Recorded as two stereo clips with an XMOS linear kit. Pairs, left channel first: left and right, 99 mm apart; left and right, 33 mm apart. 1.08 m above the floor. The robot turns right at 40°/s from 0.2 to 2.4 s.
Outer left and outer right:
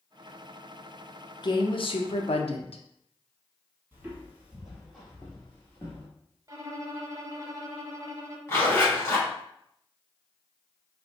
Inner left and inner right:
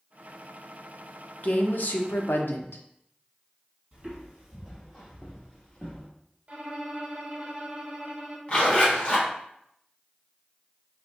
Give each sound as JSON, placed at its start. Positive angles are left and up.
{"t": 1.4, "sound": "a woman speaking", "azimuth_deg": 50, "distance_m": 0.6}
{"t": 3.9, "sound": "footsteps", "side_deg": -20, "distance_m": 1.7}
{"t": 6.5, "sound": "a violin", "side_deg": -35, "distance_m": 0.6}
{"t": 8.5, "sound": "a zipper", "side_deg": 25, "distance_m": 1.5}